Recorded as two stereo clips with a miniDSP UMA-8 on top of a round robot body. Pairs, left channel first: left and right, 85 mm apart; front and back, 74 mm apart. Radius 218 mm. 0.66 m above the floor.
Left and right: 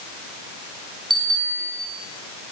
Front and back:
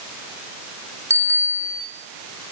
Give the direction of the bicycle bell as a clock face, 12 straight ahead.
4 o'clock.